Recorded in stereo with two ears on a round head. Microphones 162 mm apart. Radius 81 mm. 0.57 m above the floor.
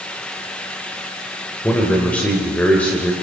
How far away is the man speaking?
About 2 m.